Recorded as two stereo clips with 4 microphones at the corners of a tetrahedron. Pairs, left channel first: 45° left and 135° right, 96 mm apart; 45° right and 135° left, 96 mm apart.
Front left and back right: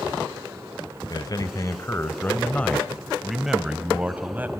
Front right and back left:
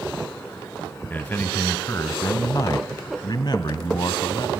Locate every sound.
1.1 s a man speaking: 20° left, 1.4 m; by 4.6 s 70° right, 1.7 m